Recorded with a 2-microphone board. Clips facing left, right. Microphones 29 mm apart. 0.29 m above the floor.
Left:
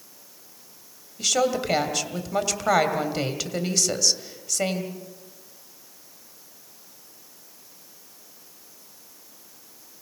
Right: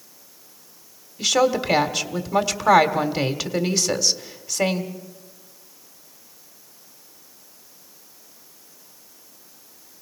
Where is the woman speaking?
15° right (ahead or behind), 1.7 m.